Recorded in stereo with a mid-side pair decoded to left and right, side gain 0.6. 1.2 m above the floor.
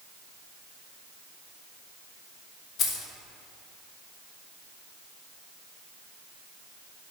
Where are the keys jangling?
50° left, 0.6 m.